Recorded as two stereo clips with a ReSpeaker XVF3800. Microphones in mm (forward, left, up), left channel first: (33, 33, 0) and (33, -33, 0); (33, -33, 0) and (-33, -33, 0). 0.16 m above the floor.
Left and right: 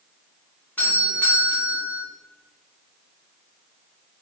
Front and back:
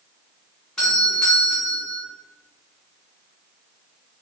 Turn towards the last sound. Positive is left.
turn(degrees=65)